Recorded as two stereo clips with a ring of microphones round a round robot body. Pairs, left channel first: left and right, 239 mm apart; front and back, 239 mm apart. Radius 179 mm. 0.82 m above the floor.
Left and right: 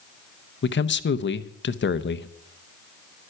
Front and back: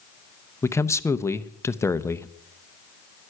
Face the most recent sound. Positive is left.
turn(degrees=75)